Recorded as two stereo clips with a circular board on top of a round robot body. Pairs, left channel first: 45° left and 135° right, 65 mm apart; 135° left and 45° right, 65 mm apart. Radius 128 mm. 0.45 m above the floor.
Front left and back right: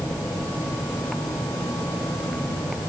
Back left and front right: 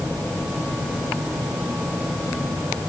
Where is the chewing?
I don't hear chewing.